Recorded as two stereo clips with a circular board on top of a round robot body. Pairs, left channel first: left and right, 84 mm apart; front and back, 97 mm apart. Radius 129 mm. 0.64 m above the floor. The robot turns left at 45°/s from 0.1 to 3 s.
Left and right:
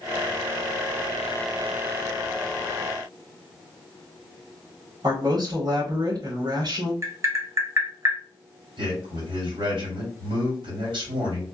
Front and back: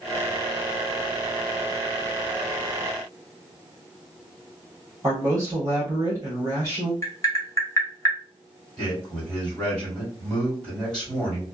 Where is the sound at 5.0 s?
120° right, 1.5 m.